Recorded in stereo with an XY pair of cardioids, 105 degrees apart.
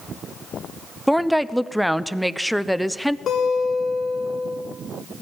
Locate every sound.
1.1 s a woman speaking: straight ahead, 0.8 m
3.3 s a guitar: 55° left, 4 m